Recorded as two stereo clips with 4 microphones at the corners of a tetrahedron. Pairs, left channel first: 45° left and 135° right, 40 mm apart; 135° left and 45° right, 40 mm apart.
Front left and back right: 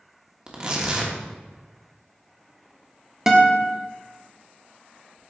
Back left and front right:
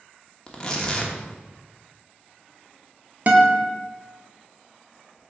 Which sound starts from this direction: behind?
Tearing paper, at 0.5 s.